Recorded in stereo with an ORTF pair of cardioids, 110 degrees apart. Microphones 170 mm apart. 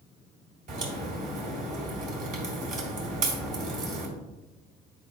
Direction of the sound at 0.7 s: 55° right.